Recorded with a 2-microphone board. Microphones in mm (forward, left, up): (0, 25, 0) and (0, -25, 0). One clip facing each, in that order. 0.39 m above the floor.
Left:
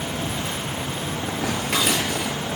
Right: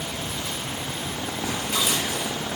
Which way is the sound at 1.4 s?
60° left (ahead or behind).